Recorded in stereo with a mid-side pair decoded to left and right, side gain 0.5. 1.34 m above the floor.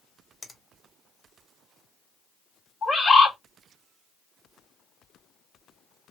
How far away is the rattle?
No rattle in this recording.